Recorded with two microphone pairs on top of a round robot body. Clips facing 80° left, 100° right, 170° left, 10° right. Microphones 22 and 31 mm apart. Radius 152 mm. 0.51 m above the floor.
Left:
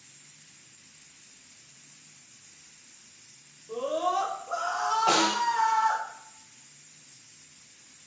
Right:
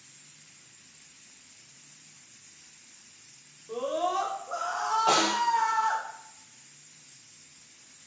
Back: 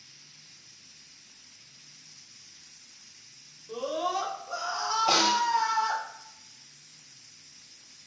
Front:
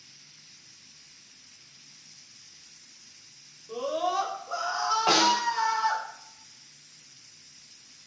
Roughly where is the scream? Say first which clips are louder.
Left 1 dB, front 2 dB; right.